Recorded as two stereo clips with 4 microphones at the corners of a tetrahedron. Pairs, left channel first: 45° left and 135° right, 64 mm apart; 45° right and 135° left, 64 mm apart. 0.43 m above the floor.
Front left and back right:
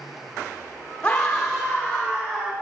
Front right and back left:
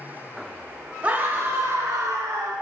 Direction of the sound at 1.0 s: 95° left.